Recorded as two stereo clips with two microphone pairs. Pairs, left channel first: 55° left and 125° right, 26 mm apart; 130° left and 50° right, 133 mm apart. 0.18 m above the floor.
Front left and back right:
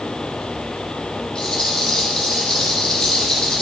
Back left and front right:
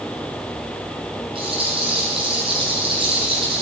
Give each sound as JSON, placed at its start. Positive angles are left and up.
{"t": 1.4, "sound": "a rattle", "azimuth_deg": 0, "distance_m": 2.0}